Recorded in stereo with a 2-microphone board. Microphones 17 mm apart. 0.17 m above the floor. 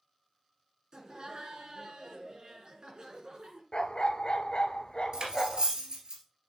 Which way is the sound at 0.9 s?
45° right (ahead or behind).